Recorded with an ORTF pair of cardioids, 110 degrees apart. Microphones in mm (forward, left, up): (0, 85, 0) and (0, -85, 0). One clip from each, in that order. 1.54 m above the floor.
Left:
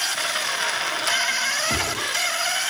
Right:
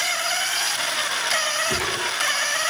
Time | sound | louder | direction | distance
1.7 | a gunshot | even | 30° left | 8 m